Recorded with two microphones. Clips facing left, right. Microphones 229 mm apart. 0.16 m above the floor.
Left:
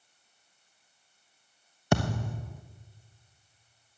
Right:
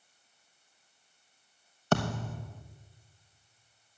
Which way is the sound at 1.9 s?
15° left (ahead or behind).